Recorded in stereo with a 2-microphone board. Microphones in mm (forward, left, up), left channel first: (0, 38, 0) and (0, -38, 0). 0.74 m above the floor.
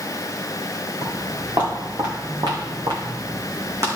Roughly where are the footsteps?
Right.